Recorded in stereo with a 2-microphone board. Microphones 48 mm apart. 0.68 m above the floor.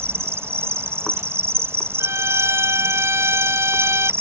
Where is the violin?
70° right (ahead or behind).